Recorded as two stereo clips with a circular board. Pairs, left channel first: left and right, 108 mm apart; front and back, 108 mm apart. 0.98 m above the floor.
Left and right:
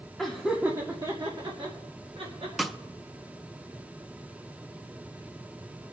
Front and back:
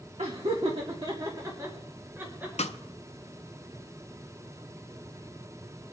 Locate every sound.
0.2 s laughter: 175° left, 1.4 m; by 2.5 s 110° right, 3.5 m
2.6 s a snare drum: straight ahead, 0.6 m